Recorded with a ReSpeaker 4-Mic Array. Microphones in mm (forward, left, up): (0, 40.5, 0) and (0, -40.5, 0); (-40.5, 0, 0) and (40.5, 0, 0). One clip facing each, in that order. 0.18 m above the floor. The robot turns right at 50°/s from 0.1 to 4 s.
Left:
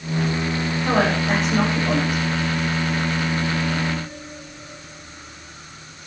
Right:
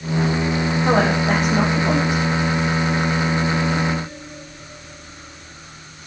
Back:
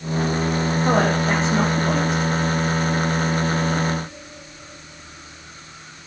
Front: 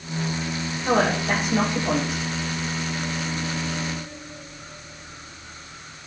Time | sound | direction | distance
0.8 | a woman speaking | 150° right | 7.5 m